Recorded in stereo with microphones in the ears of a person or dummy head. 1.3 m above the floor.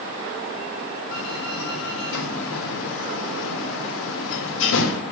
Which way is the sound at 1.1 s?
75° left (ahead or behind).